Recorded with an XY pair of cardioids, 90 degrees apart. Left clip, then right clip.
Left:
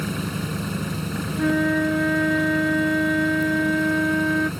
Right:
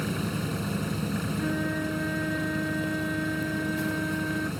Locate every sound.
0.0 s an engine running: 30° left
1.4 s a flute: 65° left